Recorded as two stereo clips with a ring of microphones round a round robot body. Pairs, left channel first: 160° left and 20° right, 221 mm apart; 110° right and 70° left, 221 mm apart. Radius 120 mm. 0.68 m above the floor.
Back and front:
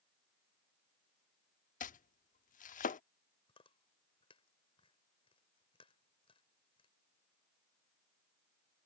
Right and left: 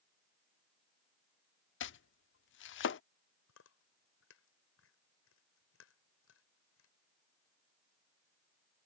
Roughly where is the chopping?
Behind right.